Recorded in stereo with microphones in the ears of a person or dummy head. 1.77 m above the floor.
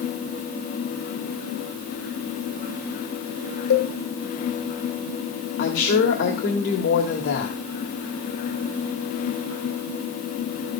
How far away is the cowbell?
About 1.4 m.